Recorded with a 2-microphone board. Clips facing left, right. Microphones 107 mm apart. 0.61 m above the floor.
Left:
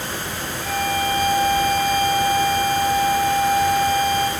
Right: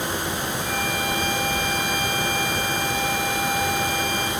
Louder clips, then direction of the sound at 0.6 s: Left 9 dB; 45° left (ahead or behind).